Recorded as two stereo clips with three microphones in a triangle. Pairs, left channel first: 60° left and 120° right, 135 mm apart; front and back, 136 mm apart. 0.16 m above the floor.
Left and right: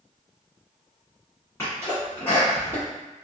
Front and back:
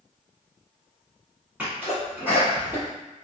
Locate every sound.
1.6 s a sneeze: 110° left, 1.4 m